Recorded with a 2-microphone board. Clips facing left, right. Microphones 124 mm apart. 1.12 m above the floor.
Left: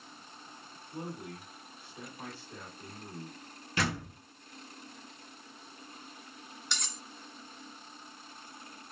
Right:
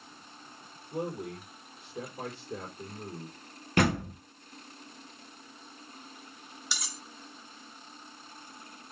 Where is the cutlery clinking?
5° right (ahead or behind), 0.8 m.